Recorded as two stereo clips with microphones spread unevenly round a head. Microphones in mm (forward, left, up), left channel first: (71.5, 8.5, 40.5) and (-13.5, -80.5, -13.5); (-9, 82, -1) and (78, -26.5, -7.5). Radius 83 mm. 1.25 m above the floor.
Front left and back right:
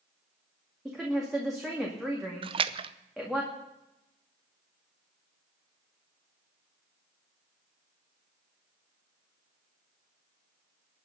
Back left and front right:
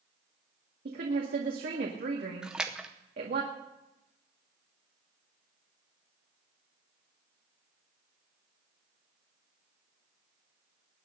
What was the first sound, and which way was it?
A woman speaking, 45° right.